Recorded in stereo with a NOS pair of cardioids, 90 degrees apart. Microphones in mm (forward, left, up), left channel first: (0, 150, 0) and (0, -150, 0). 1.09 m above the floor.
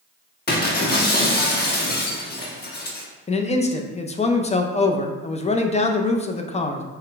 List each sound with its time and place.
0.5 s breaking glass: 35° left, 1.2 m
3.3 s a man speaking: 20° left, 0.6 m